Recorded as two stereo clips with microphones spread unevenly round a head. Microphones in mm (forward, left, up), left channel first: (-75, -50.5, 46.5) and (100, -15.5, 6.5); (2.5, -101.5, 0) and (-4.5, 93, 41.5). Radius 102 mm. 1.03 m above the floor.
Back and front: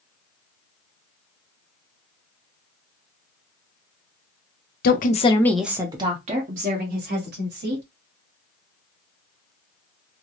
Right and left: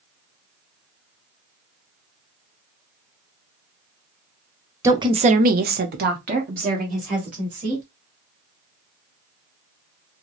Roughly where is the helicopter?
I don't hear a helicopter.